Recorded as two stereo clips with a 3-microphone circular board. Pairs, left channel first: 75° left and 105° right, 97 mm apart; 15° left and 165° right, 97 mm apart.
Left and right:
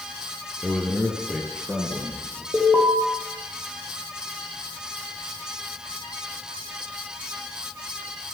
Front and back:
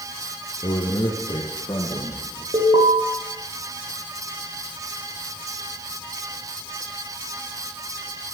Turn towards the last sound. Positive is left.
turn(degrees=180)